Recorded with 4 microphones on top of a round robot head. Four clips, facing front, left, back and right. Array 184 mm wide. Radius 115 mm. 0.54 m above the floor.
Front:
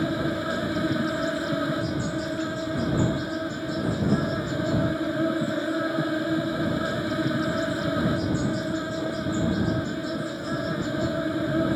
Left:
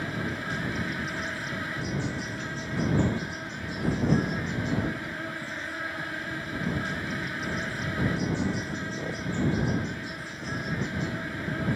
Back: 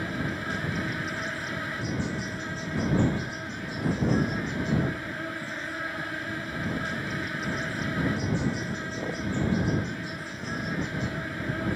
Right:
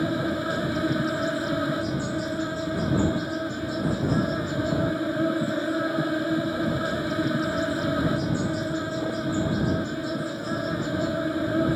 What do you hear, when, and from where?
0.0 s an insect: 45° right